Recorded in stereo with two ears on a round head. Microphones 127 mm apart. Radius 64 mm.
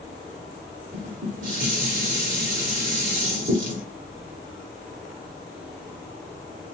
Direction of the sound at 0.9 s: 65° right (ahead or behind).